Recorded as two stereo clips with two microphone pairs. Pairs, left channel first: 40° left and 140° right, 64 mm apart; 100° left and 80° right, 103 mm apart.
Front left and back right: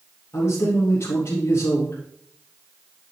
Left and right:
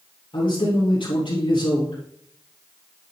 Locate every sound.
0.3 s a man speaking: 80° left, 3.5 m